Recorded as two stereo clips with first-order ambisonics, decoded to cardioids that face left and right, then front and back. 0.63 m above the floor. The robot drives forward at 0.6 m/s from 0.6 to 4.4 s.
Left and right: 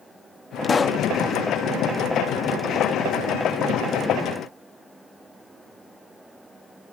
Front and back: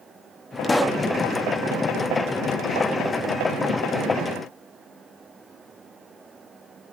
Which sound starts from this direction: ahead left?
A pop, at 0.6 s.